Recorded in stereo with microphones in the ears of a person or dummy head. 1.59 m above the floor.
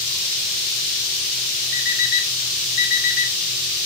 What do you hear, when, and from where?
1.7 s an alarm clock: 50° left (ahead or behind), 5 m